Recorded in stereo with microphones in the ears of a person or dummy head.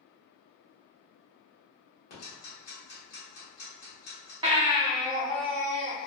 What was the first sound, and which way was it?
Ticking, 45° left (ahead or behind).